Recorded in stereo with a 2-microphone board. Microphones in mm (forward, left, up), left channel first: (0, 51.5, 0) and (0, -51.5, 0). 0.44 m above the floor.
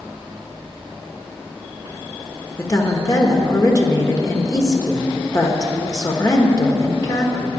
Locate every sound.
2.6 s a woman speaking: 35° left (ahead or behind), 1.2 m